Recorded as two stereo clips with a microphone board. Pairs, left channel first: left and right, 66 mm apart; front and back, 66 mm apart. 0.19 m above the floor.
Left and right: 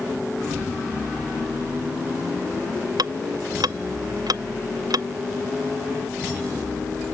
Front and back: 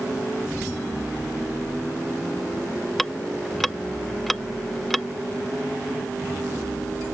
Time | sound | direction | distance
3.0 | ticking | 90° right | ?